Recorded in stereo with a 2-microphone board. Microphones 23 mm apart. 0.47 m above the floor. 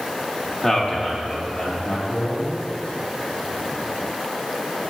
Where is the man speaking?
15° left (ahead or behind), 0.9 m; by 2.6 s 35° left (ahead or behind), 3 m.